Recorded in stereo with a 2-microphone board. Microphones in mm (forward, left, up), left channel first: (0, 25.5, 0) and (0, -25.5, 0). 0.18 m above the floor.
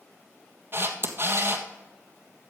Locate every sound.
0.7 s a camera shutter: 40° right (ahead or behind), 1.4 m